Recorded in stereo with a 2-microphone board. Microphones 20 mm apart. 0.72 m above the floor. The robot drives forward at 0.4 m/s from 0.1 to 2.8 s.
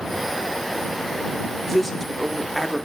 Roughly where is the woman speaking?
Centre.